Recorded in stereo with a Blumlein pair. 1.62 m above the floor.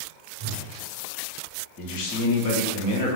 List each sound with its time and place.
0.4 s a whoosh: 40° right, 1.0 m
1.8 s a man speaking: 45° left, 1.0 m